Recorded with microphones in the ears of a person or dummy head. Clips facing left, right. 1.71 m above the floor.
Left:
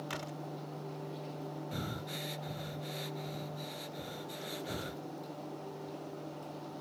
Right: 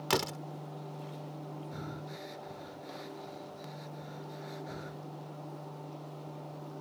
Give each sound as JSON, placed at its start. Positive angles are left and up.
{"t": 0.1, "sound": "a door slam", "side_deg": -85}
{"t": 1.7, "sound": "breathing", "side_deg": 40}